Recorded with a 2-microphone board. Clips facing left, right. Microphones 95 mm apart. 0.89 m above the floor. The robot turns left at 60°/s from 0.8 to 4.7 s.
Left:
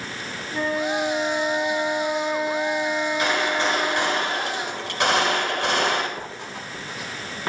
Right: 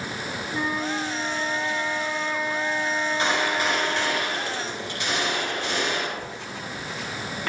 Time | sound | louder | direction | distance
0.5 | a flute | left 4 dB | 125° left | 5.5 m
3.2 | a gunshot | even | 150° right | 9.5 m
6.2 | writing | even | 20° left (ahead or behind) | 7.5 m